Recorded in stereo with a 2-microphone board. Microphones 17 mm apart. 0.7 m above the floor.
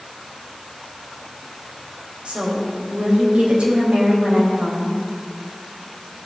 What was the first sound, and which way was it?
A woman speaking, 70° right (ahead or behind).